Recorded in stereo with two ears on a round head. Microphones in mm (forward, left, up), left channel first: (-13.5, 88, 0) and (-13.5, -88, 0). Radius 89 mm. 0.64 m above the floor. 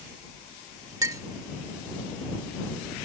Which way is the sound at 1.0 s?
15° right (ahead or behind).